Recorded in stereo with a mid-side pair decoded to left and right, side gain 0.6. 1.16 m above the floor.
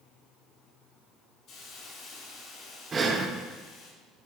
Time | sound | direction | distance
1.5 | a hiss | 55° left | 3 m
2.9 | breathing | 30° right | 0.8 m